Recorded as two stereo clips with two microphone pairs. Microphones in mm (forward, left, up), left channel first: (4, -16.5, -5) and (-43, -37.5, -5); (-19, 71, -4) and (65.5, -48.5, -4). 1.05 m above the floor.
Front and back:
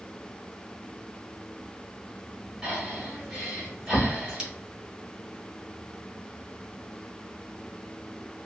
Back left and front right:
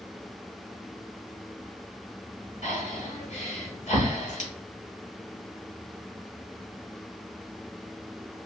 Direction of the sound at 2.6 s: 135° left.